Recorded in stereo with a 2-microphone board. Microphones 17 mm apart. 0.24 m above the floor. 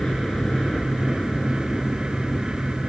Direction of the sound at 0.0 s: 55° left (ahead or behind).